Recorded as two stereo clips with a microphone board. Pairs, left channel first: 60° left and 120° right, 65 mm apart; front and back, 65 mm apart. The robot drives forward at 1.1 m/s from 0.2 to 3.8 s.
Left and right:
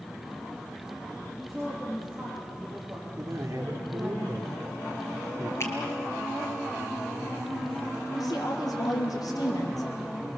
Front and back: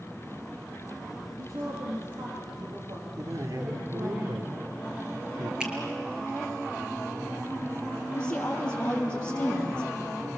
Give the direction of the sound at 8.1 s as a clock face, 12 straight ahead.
10 o'clock.